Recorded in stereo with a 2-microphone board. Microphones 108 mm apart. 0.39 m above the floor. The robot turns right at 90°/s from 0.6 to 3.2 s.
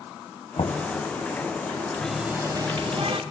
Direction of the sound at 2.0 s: 170° left.